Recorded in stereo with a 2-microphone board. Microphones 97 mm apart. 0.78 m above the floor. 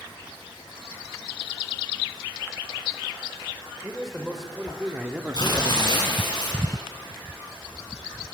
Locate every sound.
3.8 s a man speaking: centre (ahead or behind), 3 m; by 6.2 s 50° right (ahead or behind), 0.8 m
5.3 s tearing paper: 45° left (ahead or behind), 8 m